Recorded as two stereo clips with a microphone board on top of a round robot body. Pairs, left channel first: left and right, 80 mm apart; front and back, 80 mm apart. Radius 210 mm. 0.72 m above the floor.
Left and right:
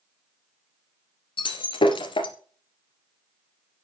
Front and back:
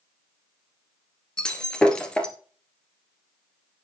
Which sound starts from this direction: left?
Breaking glass, at 1.4 s.